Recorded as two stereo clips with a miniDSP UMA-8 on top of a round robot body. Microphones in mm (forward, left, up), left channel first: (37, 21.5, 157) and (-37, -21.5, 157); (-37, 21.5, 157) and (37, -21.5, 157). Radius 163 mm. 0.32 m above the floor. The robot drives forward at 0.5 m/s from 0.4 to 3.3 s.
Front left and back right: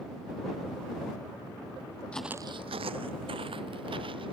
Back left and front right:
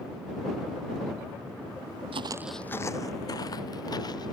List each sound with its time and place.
2.1 s footsteps: 45° right; by 4.3 s 170° right